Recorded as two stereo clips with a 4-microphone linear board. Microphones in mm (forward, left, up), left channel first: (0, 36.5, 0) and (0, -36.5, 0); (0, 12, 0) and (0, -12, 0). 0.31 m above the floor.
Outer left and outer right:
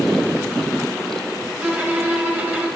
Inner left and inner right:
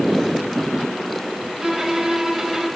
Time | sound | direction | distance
1.6 | a violin | 25° right (ahead or behind) | 2.5 m